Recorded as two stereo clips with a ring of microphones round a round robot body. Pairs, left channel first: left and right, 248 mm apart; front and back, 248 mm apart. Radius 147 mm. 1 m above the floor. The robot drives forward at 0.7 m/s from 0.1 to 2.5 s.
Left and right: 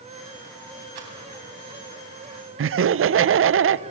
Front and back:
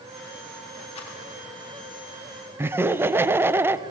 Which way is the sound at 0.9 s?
70° right.